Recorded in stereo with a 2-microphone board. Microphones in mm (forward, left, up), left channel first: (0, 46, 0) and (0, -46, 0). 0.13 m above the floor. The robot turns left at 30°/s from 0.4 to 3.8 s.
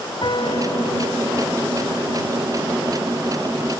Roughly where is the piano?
Behind left.